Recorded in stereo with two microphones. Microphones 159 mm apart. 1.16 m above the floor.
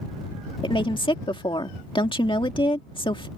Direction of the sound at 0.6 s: 30° left (ahead or behind).